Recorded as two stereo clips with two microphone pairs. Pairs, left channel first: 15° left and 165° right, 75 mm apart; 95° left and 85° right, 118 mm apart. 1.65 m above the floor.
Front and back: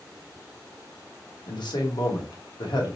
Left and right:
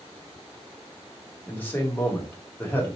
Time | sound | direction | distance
1.5 | a man speaking | 20° left | 1.6 m